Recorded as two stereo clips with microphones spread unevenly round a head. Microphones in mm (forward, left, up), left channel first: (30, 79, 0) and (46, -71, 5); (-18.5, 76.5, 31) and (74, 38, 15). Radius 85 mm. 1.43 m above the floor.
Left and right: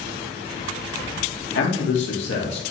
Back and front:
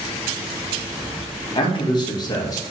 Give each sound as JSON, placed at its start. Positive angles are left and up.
{"t": 1.6, "sound": "a man speaking", "azimuth_deg": 120, "distance_m": 2.0}